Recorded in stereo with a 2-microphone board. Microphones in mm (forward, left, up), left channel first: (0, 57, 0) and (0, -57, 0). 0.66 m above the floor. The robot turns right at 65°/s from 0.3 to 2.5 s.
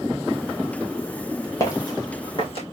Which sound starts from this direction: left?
Footsteps, at 1.6 s.